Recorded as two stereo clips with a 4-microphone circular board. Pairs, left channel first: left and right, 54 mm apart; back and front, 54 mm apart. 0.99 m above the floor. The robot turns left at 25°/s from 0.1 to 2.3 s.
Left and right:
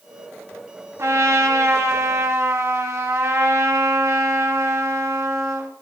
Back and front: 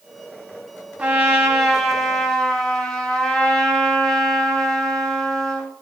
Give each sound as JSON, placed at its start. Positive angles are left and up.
{"t": 1.0, "sound": "a trumpet", "azimuth_deg": -65, "distance_m": 3.0}